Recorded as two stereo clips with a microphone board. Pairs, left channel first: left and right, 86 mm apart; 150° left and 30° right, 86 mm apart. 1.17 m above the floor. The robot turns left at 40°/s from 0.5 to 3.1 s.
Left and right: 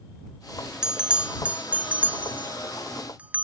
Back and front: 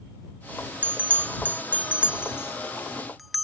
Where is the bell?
30° right; by 3.5 s 120° right.